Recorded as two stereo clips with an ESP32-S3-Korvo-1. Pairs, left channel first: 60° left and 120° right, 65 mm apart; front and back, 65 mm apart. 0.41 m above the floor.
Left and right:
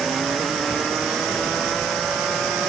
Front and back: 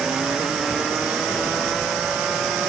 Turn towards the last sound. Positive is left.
No sound to turn to.